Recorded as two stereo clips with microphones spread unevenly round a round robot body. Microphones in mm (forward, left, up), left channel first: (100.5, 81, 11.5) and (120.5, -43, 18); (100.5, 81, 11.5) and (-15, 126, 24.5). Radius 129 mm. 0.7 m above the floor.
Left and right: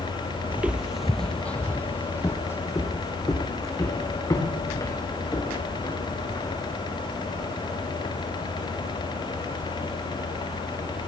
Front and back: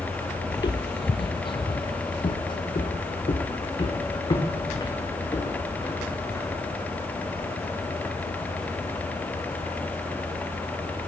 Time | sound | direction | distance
0.5 | footsteps | 35° right | 0.7 m